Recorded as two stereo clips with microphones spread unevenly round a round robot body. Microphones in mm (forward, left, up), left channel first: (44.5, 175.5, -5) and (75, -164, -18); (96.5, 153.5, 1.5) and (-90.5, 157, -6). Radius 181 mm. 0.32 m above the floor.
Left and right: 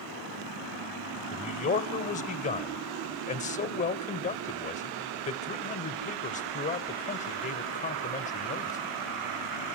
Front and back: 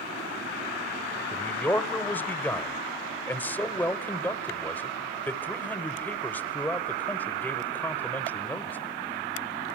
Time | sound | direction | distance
1.3 | a man speaking | 70° left | 1.0 m